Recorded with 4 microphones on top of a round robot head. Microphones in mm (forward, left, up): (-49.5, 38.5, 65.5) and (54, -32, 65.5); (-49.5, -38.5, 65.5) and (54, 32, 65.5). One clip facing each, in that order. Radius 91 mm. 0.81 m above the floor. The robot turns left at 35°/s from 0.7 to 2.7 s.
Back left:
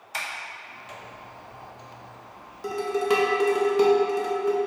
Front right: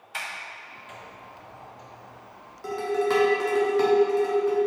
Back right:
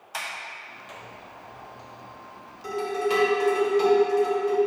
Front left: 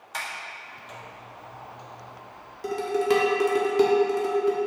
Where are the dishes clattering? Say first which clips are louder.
Back left 1 dB, front left 2 dB; 70° left, 1.3 m.